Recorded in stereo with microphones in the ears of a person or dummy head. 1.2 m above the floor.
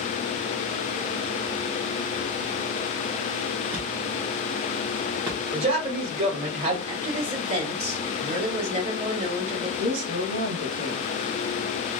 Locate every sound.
3.7 s a thud: 15° right (ahead or behind), 0.8 m
5.5 s a man speaking: 30° right (ahead or behind), 1.3 m
6.9 s a woman speaking: 35° right (ahead or behind), 1.6 m
9.8 s a woman speaking: 85° right, 1.3 m